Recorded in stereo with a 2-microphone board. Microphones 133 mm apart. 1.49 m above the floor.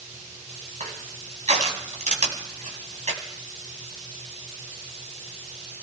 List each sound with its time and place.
0.8 s crushing: 65° right (ahead or behind), 3 m